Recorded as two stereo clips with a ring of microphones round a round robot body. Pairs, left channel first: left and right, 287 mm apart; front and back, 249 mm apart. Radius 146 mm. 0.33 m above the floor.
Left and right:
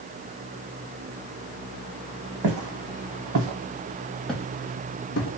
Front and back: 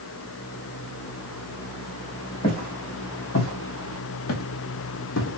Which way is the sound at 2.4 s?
65° right.